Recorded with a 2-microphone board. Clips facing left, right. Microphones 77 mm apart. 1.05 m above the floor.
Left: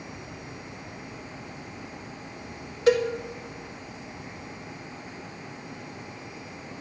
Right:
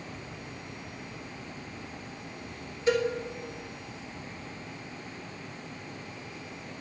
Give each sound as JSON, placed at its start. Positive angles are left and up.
{"t": 2.9, "sound": "a cowbell", "side_deg": 75, "distance_m": 1.6}